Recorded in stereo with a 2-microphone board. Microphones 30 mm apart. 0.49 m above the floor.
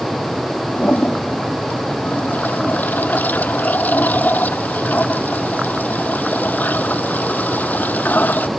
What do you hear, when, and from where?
0.8 s a toilet flushing: 85° left